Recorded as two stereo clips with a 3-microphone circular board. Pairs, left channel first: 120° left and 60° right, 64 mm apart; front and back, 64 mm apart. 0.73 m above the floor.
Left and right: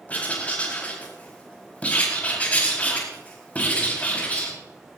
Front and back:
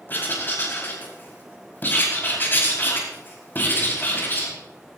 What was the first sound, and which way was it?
Writing, 55° left.